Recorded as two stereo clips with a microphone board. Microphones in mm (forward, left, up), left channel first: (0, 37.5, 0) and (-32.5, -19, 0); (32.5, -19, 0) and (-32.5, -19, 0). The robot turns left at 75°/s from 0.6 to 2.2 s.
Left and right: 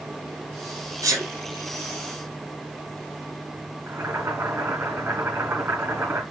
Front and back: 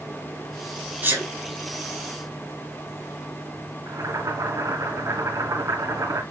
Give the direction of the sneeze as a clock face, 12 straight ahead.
4 o'clock.